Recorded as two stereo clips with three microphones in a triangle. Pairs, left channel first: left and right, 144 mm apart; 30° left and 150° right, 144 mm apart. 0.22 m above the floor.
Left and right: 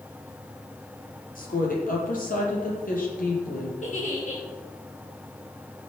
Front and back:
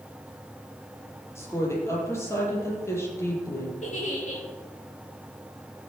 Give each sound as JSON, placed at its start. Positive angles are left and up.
{"t": 1.4, "sound": "a woman speaking", "azimuth_deg": 100, "distance_m": 6.5}
{"t": 3.8, "sound": "a giggle", "azimuth_deg": 60, "distance_m": 6.5}